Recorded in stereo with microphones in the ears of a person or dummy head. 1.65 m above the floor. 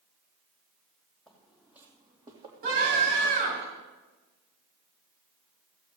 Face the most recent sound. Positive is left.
turn(degrees=-55)  # may be behind; listen again after turning